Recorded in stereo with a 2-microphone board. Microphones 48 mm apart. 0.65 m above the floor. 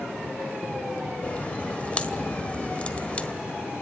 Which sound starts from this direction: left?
A crack, at 1.2 s.